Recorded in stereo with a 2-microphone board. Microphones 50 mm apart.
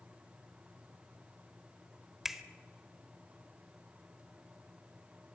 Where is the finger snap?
5° right (ahead or behind), 1.1 m.